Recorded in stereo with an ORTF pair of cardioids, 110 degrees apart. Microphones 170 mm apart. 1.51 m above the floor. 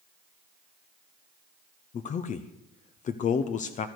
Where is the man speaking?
50° left, 0.8 m.